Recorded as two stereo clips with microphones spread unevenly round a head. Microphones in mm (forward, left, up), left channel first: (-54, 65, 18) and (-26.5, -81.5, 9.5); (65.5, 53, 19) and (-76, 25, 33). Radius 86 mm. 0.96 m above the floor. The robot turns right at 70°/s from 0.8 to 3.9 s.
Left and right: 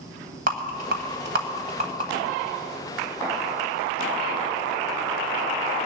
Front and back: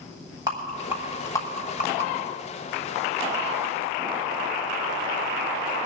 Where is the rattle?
100° right, 1.7 m; by 2.1 s 10° right, 1.7 m.